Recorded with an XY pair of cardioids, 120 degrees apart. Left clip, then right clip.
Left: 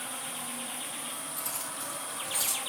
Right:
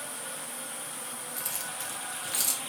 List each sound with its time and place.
1.4 s keys jangling: 35° right, 2 m; by 2.6 s 55° right, 2.5 m